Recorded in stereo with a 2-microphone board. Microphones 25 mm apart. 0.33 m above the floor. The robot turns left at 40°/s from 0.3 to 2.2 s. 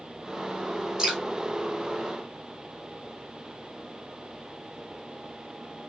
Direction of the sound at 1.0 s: 20° right (ahead or behind).